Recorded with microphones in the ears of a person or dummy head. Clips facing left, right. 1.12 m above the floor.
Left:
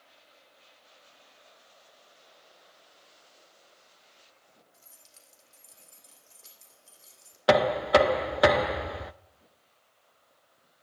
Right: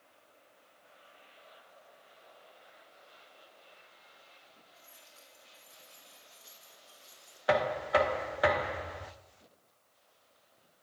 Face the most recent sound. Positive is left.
turn(degrees=50)  # may be behind; listen again after turning